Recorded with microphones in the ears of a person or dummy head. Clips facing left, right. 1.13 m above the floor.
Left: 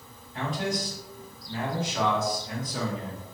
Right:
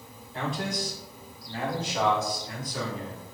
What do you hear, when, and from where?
0.3 s a man speaking: 55° right (ahead or behind), 1.5 m; by 3.2 s 50° left (ahead or behind), 0.9 m